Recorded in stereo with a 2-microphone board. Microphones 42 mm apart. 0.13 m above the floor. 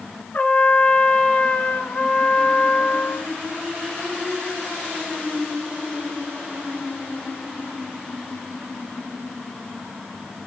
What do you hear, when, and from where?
0.3 s a trumpet: 35° left (ahead or behind), 1.2 m